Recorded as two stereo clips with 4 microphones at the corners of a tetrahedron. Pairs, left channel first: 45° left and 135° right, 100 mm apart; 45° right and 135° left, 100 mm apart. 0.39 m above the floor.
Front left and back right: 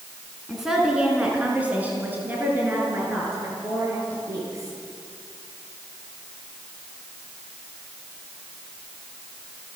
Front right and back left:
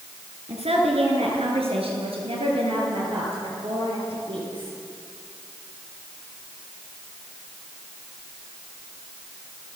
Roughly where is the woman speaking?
Behind left.